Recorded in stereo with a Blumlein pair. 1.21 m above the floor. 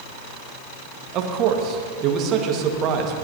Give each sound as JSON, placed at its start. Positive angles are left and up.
{"t": 1.1, "sound": "a man speaking", "azimuth_deg": -35, "distance_m": 1.7}